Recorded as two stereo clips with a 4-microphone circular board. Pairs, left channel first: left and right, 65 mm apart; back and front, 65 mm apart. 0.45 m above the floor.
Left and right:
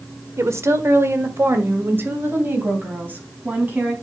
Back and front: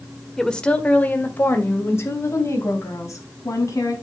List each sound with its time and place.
0.4 s a woman speaking: 100° right, 1.3 m; by 3.9 s 150° right, 3.5 m